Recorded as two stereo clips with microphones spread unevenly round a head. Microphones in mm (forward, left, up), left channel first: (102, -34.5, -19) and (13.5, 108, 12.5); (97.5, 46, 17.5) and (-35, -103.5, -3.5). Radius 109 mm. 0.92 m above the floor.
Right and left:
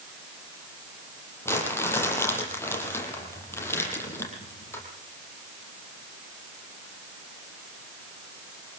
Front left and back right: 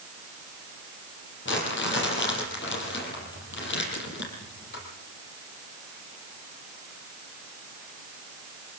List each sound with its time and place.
1.4 s crumpling: 20° left, 9 m